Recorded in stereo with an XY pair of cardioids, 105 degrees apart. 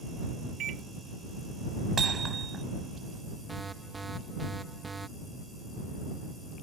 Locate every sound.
0.6 s a microwave: 65° right
2.0 s hammering: 40° right
3.5 s an alarm: 20° right